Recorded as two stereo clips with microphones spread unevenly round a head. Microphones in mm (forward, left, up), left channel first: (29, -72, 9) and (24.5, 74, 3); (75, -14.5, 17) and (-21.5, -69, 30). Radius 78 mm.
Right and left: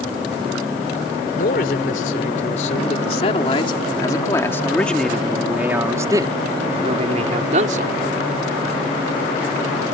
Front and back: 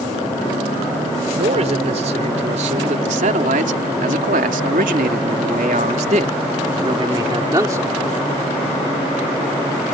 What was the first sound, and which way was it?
A man speaking, 125° right.